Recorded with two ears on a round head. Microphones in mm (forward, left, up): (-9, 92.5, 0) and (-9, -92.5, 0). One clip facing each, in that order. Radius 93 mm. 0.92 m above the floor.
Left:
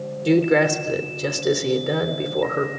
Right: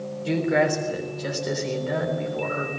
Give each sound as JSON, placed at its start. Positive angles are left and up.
{"t": 0.2, "sound": "a man speaking", "side_deg": 65, "distance_m": 3.5}